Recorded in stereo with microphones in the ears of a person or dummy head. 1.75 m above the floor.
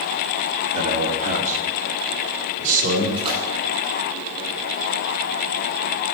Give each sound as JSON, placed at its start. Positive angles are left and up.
{"t": 0.7, "sound": "a man speaking", "side_deg": -35, "distance_m": 4.0}
{"t": 3.2, "sound": "a splash", "side_deg": -30, "distance_m": 8.5}